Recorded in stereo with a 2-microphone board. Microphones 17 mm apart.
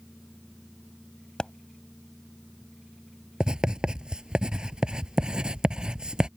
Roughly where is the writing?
Right.